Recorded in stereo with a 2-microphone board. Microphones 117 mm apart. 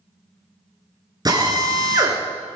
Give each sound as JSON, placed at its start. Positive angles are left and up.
{"t": 1.2, "sound": "a drill", "side_deg": -35, "distance_m": 2.0}